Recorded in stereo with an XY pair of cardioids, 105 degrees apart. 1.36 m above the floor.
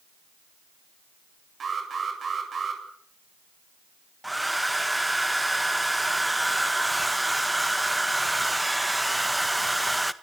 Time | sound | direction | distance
1.6 | an alarm | 40° right | 8.5 m
4.2 | a hair dryer | 5° right | 1.5 m